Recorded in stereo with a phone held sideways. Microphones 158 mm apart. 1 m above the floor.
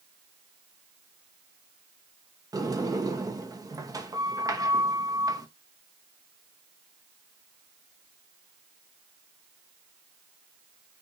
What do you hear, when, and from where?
2.5 s a sliding door: 25° right (ahead or behind), 1.2 m